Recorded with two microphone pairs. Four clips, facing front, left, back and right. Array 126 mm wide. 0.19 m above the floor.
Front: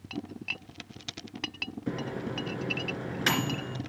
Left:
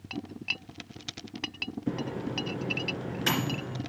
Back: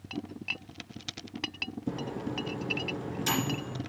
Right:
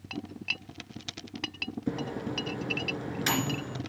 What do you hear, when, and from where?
1.9 s a microwave: 15° right, 2.5 m